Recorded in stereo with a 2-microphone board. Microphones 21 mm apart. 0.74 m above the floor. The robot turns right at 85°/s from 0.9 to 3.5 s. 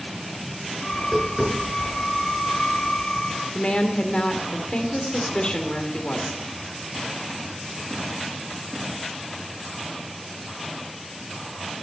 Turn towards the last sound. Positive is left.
turn(degrees=50)  # may be behind; listen again after turning